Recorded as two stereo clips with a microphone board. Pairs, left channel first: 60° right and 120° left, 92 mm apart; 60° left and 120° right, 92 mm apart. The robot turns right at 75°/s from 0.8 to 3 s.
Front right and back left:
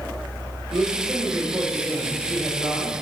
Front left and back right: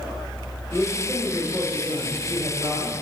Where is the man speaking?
135° left, 2 m; by 2.9 s 65° right, 2 m.